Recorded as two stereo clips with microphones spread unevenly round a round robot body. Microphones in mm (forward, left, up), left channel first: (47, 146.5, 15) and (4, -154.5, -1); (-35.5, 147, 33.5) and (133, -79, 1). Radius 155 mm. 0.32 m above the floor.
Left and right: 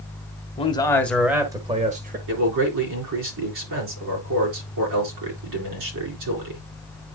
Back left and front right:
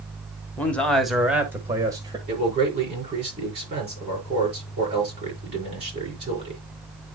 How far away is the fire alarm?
I don't hear a fire alarm.